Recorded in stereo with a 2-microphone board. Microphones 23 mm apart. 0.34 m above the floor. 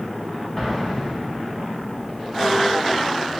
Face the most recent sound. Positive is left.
turn(degrees=30)  # may be behind; listen again after turning